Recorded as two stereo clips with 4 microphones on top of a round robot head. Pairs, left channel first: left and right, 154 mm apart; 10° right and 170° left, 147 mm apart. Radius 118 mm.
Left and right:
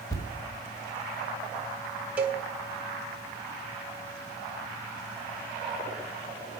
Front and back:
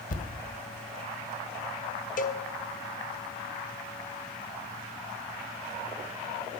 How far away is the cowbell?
About 1.0 m.